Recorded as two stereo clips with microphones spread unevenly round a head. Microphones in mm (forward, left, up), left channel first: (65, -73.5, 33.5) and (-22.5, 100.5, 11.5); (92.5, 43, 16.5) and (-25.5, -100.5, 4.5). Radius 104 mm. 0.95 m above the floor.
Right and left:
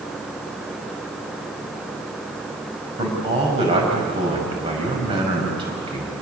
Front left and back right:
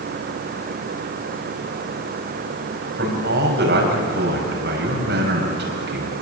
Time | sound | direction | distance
3.0 | a man speaking | 175° right | 6.5 m